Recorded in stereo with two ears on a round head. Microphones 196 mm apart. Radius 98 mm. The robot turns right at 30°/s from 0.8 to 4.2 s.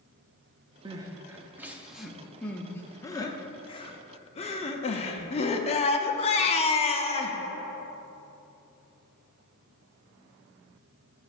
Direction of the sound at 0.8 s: 20° right (ahead or behind).